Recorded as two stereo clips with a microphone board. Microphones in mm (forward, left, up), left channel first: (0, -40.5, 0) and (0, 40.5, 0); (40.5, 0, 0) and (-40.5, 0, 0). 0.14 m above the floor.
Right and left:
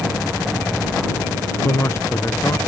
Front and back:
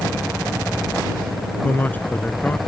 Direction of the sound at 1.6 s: 60° right.